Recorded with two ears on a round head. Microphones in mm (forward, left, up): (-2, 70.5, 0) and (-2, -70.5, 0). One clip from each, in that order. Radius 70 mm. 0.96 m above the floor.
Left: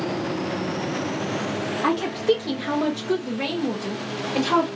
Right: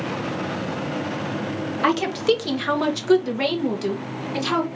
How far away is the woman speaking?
About 1.2 m.